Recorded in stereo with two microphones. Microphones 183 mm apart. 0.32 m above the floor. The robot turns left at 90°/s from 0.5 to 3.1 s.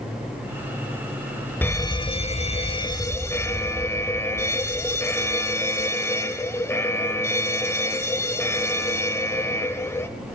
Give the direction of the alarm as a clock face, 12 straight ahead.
7 o'clock.